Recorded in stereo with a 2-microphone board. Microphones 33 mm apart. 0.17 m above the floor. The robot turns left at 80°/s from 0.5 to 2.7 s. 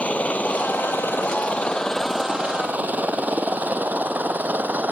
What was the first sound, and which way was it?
A helicopter, 45° left (ahead or behind).